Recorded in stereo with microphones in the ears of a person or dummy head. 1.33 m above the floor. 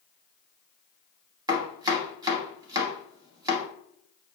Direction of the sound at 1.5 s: 20° right (ahead or behind).